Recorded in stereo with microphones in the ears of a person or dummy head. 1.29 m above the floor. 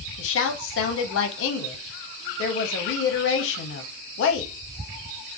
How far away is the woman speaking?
About 0.7 m.